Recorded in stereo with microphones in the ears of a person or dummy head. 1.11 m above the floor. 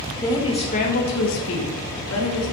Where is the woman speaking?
15° left (ahead or behind), 1.3 m; by 2.5 s 75° left (ahead or behind), 1.5 m.